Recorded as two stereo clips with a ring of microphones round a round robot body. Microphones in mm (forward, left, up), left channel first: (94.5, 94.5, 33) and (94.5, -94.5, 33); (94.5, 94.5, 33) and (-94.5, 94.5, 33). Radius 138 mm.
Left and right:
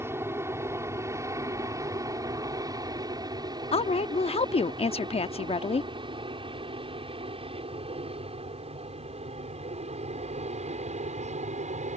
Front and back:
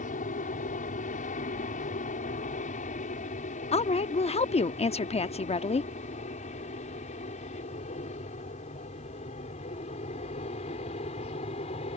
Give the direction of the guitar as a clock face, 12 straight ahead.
I don't hear a guitar.